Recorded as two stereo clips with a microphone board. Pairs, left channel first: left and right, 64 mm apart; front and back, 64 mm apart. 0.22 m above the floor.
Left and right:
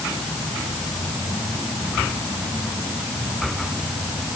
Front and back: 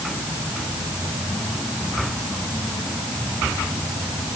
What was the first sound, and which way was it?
Only background noise.